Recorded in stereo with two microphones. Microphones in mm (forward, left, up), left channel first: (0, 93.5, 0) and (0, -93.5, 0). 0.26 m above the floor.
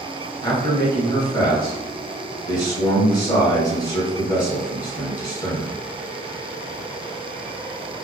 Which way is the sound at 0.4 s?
20° left (ahead or behind).